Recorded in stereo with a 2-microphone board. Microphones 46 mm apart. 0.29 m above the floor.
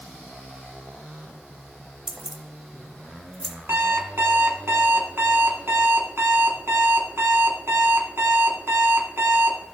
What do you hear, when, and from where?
2.1 s keys jangling: 20° right (ahead or behind), 0.9 m; by 3.5 s 10° left (ahead or behind), 1.4 m
3.7 s an alarm clock: 65° right (ahead or behind), 1.8 m